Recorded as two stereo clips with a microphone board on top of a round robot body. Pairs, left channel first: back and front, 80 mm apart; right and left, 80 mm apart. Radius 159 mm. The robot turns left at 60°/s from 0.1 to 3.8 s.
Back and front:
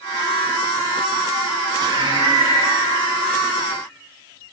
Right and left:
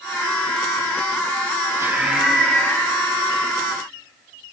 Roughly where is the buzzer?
I don't hear a buzzer.